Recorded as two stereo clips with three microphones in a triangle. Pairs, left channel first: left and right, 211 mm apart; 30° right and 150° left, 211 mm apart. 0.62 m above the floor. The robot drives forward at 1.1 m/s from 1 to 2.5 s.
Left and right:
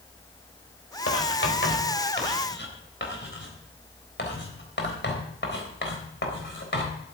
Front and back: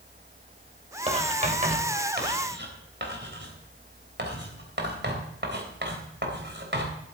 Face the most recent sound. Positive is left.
turn(degrees=120)